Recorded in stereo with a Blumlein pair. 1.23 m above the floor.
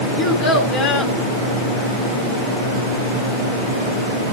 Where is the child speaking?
35° left, 6 m.